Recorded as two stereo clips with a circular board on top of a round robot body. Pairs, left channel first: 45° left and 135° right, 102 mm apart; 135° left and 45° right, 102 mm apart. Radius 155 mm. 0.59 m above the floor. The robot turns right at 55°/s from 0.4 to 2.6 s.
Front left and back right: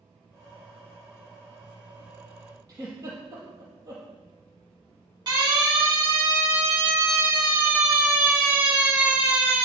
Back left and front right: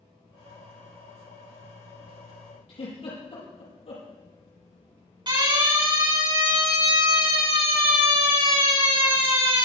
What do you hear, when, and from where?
2.7 s a giggle: 165° left, 5 m
5.3 s a siren: 85° right, 9 m; by 9.7 s 55° right, 5.5 m